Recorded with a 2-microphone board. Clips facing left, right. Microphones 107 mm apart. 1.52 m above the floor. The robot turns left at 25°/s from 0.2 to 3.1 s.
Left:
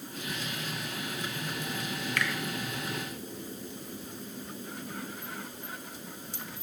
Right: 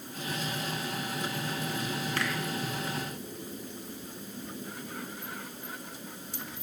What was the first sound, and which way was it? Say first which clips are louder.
A finger snap: left 1 dB; 35° right (ahead or behind).